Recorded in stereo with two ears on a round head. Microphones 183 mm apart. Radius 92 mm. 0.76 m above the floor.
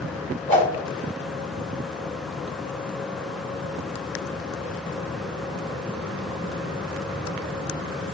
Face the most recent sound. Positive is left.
turn(degrees=65)  # may be behind; listen again after turning